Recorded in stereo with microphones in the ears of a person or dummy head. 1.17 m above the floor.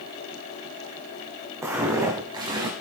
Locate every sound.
1.6 s footsteps: 15° right (ahead or behind), 3.5 m; by 2.7 s 20° right (ahead or behind), 3 m